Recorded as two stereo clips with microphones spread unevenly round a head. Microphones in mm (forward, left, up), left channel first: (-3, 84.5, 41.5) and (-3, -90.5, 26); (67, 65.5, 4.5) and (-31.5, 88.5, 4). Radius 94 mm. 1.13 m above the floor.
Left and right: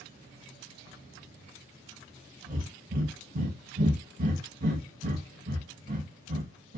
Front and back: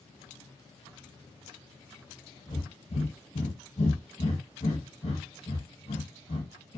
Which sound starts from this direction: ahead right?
Breathing, at 2.5 s.